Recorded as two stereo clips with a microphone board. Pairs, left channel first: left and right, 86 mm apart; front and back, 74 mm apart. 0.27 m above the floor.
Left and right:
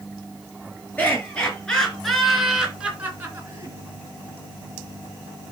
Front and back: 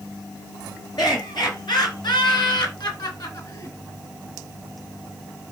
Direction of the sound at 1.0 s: 20° left.